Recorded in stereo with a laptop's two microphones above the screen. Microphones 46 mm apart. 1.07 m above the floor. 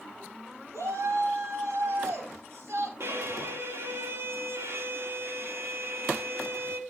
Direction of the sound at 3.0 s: 70° right (ahead or behind).